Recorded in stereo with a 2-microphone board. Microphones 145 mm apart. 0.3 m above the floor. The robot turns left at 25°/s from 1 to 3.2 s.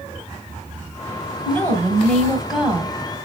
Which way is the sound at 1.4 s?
30° left.